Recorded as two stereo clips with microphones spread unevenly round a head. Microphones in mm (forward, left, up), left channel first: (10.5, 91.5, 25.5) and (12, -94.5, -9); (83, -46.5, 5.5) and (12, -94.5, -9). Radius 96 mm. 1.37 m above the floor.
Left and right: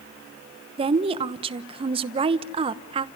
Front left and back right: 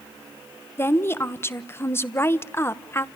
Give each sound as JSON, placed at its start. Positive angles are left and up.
{"t": 0.8, "sound": "a woman speaking", "azimuth_deg": -30, "distance_m": 1.0}